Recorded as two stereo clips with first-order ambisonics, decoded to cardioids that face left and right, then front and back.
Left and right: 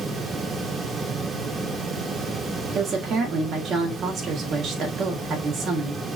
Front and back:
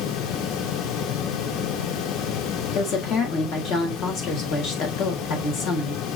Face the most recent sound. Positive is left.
turn(degrees=-40)